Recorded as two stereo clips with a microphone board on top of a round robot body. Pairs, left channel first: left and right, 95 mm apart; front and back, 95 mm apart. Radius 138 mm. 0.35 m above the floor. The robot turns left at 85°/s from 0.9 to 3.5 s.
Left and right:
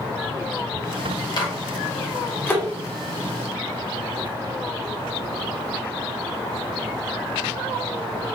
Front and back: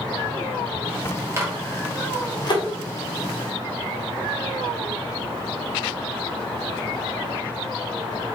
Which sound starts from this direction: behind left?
A microwave, at 1.4 s.